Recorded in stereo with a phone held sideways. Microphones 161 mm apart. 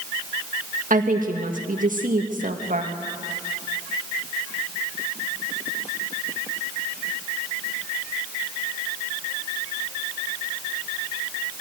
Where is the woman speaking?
55° right (ahead or behind), 1.9 m.